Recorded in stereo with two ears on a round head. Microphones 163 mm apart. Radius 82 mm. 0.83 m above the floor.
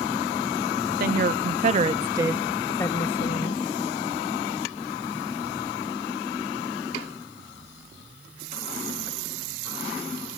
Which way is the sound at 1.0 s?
55° right (ahead or behind).